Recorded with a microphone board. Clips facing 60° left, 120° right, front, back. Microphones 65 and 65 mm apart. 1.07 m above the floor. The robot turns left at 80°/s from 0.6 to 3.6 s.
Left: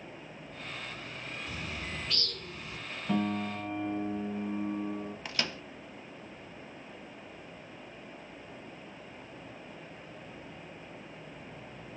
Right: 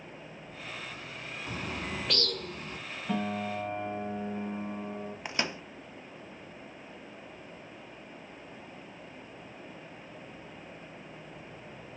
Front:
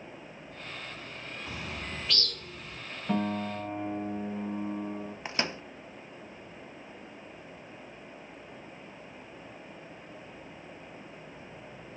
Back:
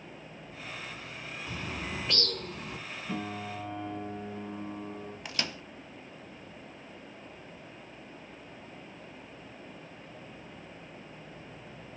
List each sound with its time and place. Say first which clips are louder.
1.5 s a bird: right 6 dB, back 2 dB; 65° right, 2.5 m; by 2.8 s 170° right, 2.5 m
3.1 s a piano: left 1 dB, front 7 dB; 25° right, 6.5 m; by 5.2 s 70° right, 6.5 m
5.2 s a microwave: right 5 dB, front 4 dB; 55° right, 0.6 m